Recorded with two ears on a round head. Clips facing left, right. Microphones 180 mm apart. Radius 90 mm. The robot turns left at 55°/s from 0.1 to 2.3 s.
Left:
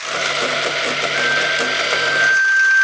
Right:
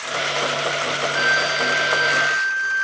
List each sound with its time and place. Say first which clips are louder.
1.1 s a flute: left 2 dB; 120° right, 1.2 m; by 2.8 s 175° left, 1.2 m